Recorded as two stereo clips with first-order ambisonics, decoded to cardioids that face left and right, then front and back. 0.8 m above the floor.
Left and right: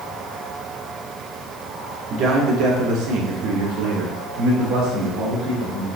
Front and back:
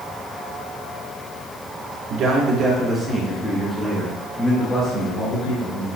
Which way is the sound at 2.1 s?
135° right.